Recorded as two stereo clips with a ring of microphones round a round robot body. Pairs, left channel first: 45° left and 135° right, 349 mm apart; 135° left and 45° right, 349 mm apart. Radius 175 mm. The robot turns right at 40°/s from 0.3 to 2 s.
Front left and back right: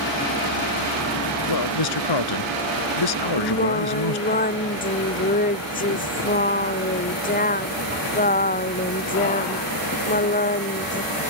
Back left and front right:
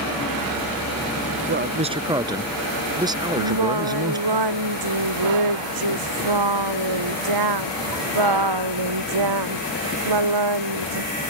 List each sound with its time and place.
1.5 s a man speaking: 10° left; by 4.4 s 35° left
3.4 s singing: 20° right